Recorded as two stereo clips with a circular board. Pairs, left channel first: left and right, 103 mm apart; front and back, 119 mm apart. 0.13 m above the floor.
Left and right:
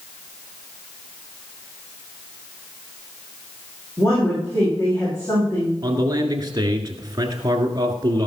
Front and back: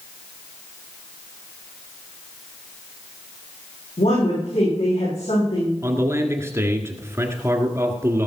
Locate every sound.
4.0 s a woman speaking: 20° left, 7.5 m
5.8 s a man speaking: 125° right, 1.7 m